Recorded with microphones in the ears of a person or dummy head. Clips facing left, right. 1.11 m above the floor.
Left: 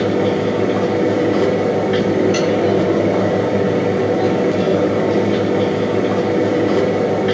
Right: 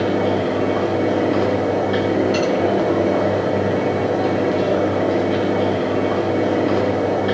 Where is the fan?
35° left (ahead or behind), 2.5 m.